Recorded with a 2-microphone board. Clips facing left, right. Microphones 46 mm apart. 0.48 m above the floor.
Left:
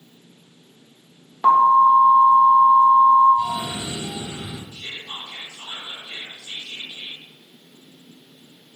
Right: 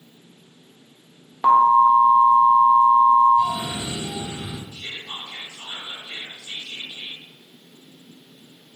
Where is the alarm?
10° right (ahead or behind), 1.1 m.